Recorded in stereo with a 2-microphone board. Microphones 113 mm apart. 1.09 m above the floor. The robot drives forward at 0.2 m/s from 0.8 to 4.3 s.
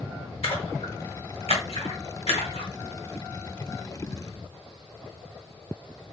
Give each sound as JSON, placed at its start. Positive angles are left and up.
{"t": 0.4, "sound": "a splash", "side_deg": 60, "distance_m": 1.6}